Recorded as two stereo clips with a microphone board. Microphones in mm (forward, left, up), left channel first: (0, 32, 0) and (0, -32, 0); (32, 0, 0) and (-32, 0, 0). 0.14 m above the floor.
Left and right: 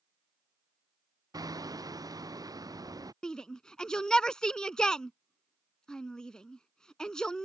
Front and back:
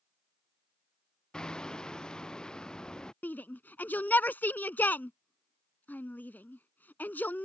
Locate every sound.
1.3 s hammering: 80° right
3.2 s a shout: 20° left